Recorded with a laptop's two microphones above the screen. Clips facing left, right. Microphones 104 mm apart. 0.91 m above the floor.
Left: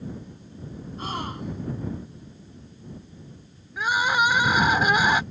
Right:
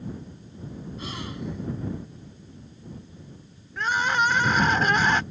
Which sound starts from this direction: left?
A gasp, at 1.0 s.